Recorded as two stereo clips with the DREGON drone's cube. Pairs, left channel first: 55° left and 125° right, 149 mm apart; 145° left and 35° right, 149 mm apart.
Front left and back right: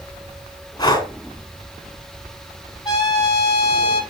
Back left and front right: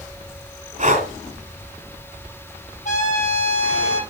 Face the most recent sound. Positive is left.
turn(degrees=115)